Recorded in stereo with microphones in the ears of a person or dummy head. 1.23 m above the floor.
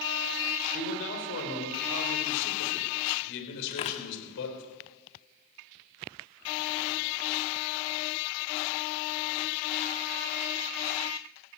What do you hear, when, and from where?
0.7 s a man speaking: 65° left (ahead or behind), 4.5 m
3.7 s tearing paper: 25° left (ahead or behind), 1.4 m